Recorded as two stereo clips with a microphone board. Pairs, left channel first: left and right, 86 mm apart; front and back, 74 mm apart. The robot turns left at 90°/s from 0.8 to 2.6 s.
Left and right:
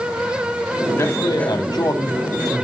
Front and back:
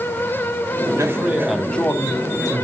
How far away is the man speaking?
About 2 m.